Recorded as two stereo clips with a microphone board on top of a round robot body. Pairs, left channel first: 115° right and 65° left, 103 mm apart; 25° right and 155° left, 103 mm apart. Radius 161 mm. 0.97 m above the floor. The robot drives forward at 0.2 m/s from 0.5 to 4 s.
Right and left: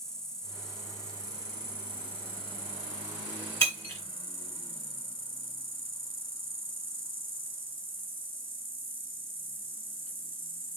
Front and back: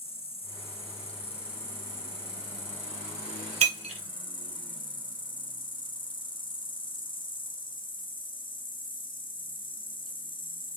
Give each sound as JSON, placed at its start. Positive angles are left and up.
{"t": 0.0, "sound": "an insect", "azimuth_deg": -30, "distance_m": 2.0}
{"t": 3.6, "sound": "breaking glass", "azimuth_deg": 175, "distance_m": 2.5}